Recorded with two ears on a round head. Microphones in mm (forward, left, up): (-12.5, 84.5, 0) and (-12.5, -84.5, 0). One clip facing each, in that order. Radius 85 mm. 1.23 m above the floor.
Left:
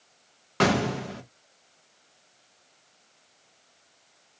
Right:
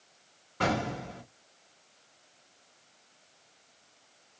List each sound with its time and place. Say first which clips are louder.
0.6 s an explosion: left 6 dB; 75° left (ahead or behind), 0.6 m